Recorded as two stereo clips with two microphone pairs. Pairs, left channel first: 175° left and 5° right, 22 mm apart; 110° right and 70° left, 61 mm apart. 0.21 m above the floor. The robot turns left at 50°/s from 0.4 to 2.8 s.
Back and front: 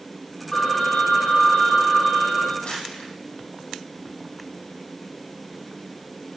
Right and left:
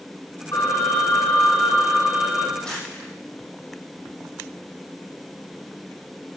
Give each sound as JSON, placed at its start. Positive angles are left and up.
{"t": 0.5, "sound": "a phone ringing", "azimuth_deg": -90, "distance_m": 8.0}
{"t": 2.6, "sound": "crumpling", "azimuth_deg": 175, "distance_m": 7.5}